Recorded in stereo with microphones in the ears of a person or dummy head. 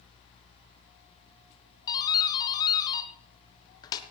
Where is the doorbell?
25° left (ahead or behind), 1.3 m.